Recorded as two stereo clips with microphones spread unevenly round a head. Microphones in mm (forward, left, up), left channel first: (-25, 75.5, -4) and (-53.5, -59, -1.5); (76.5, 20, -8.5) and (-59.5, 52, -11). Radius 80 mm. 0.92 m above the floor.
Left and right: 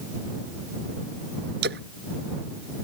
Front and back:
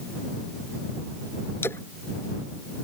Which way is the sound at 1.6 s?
90° right.